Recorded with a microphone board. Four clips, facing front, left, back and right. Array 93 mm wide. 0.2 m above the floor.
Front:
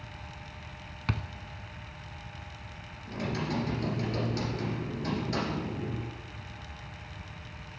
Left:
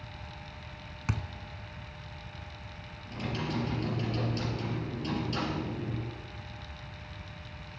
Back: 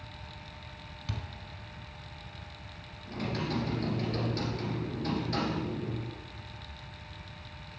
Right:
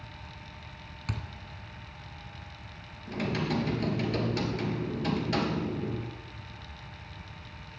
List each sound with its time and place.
1.1 s a thud: 20° left, 0.7 m
3.1 s typing on a keyboard: 85° right, 3 m